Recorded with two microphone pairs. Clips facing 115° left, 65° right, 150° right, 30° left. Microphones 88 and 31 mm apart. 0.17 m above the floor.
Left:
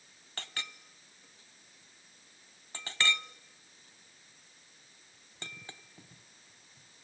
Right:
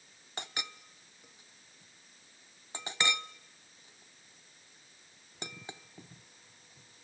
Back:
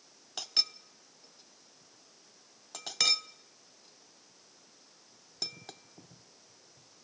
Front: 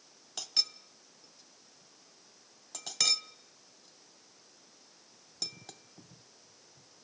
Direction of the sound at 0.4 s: 105° right.